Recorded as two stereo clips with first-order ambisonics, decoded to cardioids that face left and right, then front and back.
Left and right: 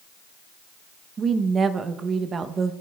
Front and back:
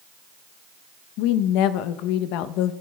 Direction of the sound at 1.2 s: 20° right.